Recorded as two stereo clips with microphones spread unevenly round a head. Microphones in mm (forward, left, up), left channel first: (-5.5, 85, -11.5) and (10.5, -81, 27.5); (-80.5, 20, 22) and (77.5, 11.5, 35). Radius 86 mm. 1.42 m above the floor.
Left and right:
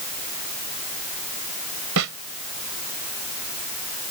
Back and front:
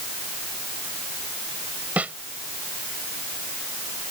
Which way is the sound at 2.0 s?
85° right.